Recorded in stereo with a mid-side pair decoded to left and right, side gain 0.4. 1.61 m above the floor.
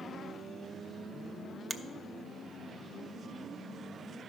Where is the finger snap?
25° right, 0.6 m.